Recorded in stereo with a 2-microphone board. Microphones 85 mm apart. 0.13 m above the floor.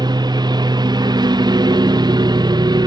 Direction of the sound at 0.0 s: 55° right (ahead or behind).